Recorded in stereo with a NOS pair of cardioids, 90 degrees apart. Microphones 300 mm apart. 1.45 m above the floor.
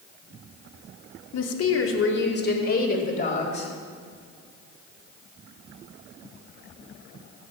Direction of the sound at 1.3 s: 55° left.